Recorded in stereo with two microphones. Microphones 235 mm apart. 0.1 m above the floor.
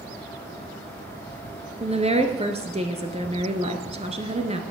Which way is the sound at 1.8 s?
25° right (ahead or behind).